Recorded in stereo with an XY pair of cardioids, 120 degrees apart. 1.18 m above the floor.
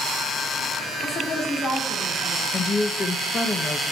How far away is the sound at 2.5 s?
About 0.8 m.